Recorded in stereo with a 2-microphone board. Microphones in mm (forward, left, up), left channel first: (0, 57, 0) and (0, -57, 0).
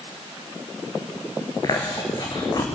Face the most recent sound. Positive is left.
turn(degrees=35)  # may be behind; listen again after turning